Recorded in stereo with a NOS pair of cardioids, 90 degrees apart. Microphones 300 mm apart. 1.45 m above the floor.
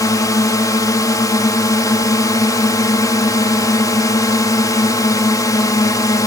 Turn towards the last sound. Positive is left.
turn(degrees=10)